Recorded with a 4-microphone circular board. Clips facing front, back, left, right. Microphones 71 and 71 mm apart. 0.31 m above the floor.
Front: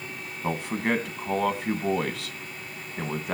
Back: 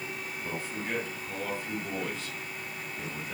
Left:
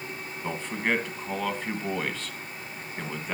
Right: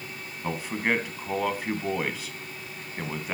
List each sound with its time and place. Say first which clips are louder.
0.4 s a man speaking: front 10 dB, right 1 dB; 10° right, 2.5 m